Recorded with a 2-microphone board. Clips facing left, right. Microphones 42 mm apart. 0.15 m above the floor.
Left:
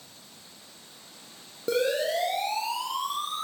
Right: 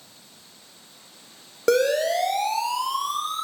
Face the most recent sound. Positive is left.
turn(degrees=-75)  # may be behind; listen again after turning